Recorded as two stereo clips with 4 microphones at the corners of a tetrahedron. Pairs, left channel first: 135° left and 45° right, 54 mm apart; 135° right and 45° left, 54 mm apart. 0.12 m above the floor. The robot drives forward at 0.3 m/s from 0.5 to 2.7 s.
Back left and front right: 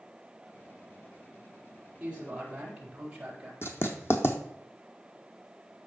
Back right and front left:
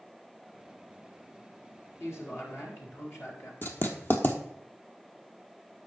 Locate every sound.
2.0 s a man speaking: 110° right, 3.5 m; by 3.5 s 115° right, 3.5 m
3.6 s writing: 175° left, 1.1 m